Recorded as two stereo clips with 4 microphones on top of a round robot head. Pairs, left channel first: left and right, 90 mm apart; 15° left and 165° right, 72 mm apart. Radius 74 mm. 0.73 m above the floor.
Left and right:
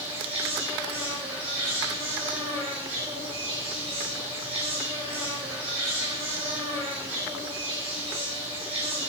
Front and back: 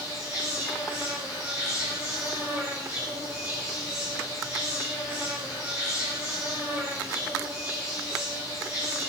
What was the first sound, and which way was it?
An insect, 100° right.